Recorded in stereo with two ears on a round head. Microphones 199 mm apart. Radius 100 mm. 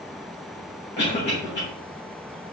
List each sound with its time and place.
1.0 s a cough: 50° left (ahead or behind), 1.3 m